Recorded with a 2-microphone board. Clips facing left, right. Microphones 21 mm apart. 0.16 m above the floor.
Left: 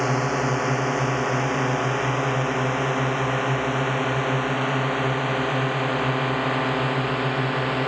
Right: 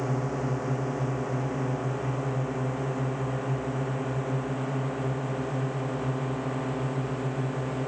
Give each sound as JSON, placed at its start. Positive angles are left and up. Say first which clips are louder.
{"t": 0.0, "sound": "a drone", "louder": "left 7 dB", "side_deg": 70}